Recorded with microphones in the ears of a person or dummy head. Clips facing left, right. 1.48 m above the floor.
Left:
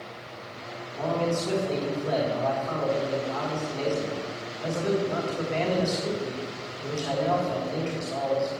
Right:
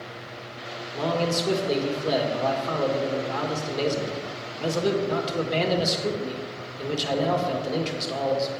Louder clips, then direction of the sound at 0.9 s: Right 1 dB; 50° right (ahead or behind).